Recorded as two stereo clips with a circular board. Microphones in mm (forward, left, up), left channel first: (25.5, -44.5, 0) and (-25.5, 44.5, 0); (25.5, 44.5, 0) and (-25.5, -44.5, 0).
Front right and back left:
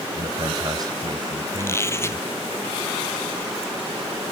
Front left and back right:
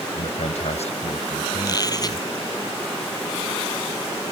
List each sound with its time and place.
0.1 s a man speaking: 65° left; by 2.3 s 70° left
1.6 s a squeak: 5° left